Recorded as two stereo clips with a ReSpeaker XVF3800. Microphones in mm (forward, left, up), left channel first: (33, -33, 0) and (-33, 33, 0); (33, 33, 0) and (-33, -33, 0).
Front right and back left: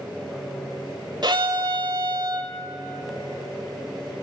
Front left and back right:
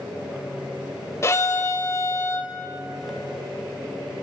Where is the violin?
100° left, 1.3 m.